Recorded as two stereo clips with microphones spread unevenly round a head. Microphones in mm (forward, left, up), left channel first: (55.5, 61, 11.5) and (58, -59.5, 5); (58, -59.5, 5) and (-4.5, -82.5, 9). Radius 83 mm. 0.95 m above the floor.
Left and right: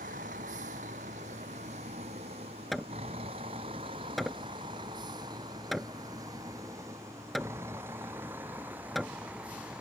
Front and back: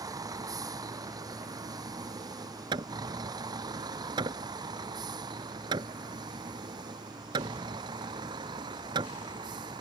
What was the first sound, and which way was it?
A vehicle, 135° right.